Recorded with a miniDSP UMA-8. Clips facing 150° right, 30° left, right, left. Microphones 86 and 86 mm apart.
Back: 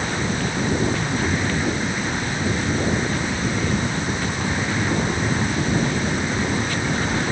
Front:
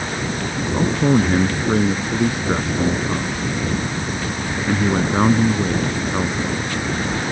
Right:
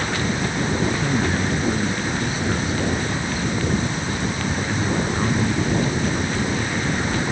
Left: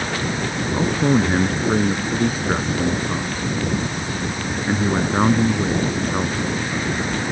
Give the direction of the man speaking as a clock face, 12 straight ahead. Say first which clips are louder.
Front 6 dB, left 7 dB; 11 o'clock.